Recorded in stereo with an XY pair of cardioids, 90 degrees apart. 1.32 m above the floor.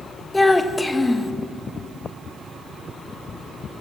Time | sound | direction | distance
0.3 | a child speaking | 15° left | 1.1 m